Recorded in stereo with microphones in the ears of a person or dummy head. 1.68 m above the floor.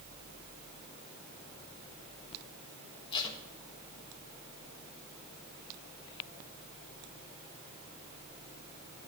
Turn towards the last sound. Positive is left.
turn(degrees=25)  # may be behind; listen again after turning